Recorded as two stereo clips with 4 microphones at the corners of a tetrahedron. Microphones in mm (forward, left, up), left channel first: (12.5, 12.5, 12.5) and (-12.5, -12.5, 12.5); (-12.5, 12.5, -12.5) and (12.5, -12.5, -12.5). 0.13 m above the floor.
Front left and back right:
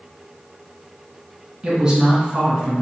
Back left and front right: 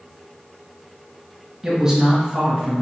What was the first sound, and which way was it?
A woman speaking, 90° right.